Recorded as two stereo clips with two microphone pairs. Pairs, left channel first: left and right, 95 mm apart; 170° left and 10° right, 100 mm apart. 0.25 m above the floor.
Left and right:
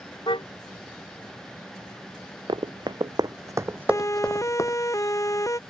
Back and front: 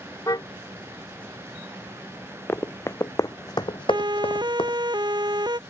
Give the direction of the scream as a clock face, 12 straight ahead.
I don't hear a scream.